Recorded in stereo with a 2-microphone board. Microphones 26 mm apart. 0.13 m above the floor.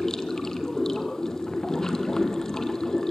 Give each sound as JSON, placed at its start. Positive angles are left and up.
{"t": 0.0, "sound": "running water", "side_deg": 25, "distance_m": 1.7}